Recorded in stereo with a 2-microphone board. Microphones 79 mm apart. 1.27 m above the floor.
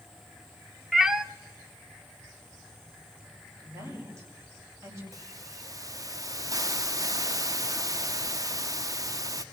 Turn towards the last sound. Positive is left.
turn(degrees=-45)  # may be behind; listen again after turning